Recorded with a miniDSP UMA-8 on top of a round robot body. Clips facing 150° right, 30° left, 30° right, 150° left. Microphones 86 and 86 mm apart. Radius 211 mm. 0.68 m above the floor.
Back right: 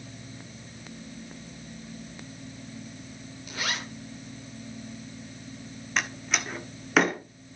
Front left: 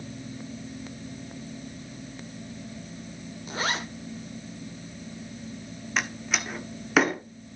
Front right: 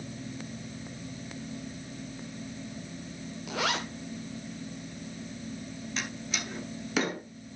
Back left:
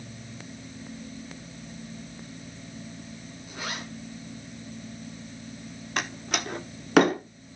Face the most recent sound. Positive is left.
turn(degrees=120)